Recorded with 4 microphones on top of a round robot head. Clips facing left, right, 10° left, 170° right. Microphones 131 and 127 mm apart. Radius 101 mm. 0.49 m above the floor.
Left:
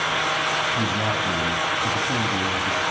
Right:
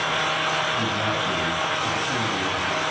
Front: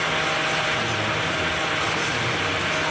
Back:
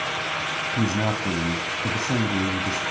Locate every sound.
0.7 s a man speaking: 165° left, 4 m